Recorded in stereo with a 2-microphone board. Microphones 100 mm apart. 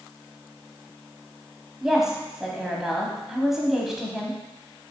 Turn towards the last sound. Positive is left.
turn(degrees=-5)  # may be behind; listen again after turning